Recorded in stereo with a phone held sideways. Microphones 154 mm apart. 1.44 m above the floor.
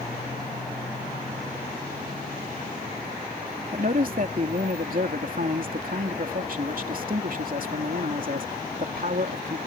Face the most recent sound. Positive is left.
turn(degrees=-60)  # may be behind; listen again after turning